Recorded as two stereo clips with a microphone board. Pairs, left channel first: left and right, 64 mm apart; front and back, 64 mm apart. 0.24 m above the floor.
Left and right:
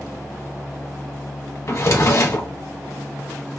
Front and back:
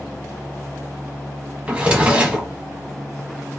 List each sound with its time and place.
1.7 s a drawer: 115° left, 0.7 m